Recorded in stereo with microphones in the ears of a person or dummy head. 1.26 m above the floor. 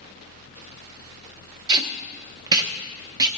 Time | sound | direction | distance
1.7 | tape being pulled | 25° right (ahead or behind) | 1.0 m